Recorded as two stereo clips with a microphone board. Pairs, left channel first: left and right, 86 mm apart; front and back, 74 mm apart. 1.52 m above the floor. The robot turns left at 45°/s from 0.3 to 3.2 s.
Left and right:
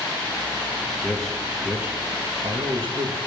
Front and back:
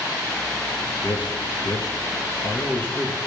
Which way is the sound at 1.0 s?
15° left.